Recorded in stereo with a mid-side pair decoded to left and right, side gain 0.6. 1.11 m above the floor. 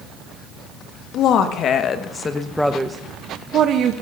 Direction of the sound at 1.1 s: 65° left.